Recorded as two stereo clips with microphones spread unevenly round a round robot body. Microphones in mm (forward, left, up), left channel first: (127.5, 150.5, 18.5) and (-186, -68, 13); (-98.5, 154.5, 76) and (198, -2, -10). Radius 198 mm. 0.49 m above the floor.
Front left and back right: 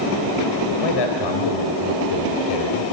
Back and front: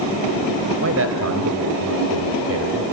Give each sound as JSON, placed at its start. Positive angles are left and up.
{"t": 0.8, "sound": "a man speaking", "azimuth_deg": 10, "distance_m": 3.0}